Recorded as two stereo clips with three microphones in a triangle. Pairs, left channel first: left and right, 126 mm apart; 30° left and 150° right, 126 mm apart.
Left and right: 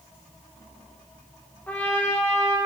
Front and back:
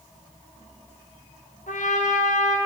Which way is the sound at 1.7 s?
10° left.